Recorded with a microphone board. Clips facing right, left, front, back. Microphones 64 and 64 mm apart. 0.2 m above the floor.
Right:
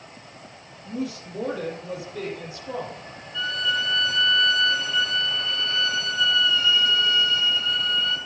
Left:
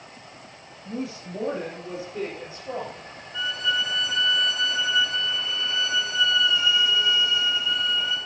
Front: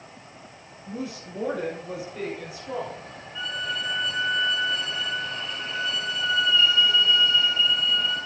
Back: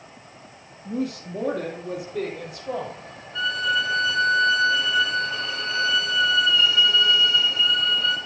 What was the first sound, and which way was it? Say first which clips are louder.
A woman speaking: right 2 dB, back 6 dB; 150° left.